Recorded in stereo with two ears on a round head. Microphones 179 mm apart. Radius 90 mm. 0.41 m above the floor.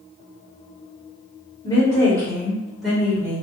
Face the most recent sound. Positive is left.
turn(degrees=-10)  # may be behind; listen again after turning